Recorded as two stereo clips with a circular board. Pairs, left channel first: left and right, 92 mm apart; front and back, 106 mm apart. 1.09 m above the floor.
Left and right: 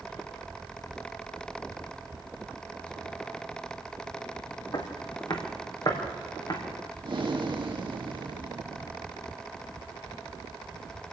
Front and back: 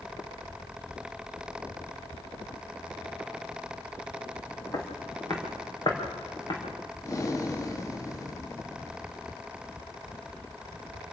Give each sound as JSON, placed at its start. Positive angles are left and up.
{"t": 4.7, "sound": "footsteps", "azimuth_deg": 50, "distance_m": 4.0}
{"t": 7.0, "sound": "breathing", "azimuth_deg": -60, "distance_m": 1.6}